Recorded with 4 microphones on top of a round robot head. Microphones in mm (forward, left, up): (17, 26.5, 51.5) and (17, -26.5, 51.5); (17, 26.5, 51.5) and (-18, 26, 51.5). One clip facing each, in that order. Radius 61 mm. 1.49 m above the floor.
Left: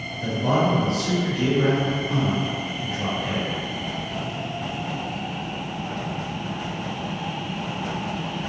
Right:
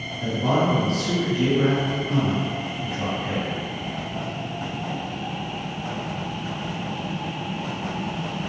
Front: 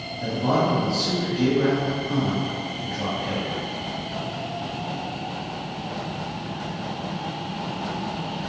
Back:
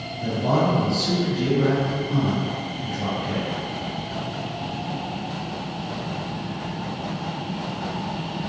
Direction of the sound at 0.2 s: 40° right.